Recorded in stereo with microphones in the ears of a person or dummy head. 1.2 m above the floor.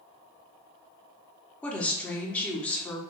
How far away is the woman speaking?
About 0.7 m.